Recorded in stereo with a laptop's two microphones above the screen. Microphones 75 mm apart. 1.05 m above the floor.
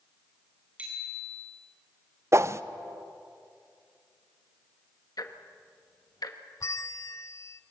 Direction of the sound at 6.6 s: 45° left (ahead or behind).